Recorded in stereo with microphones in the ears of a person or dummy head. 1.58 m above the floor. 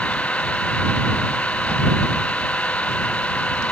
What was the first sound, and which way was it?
An engine running, 5° left (ahead or behind).